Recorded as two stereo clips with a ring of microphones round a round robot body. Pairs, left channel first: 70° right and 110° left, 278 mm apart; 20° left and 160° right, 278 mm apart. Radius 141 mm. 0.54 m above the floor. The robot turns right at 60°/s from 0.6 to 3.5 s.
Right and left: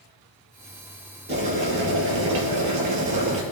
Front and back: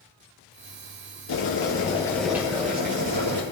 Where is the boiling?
55° left, 3.5 m; by 3.4 s 175° right, 3.5 m.